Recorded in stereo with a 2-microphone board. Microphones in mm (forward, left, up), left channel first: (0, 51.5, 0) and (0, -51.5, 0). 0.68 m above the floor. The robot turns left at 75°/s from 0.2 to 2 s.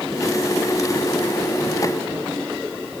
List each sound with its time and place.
Only background noise.